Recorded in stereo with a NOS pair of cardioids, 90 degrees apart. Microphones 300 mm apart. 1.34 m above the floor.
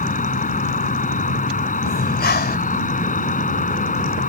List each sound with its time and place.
0.0 s an insect: 25° left
1.9 s breathing: 35° left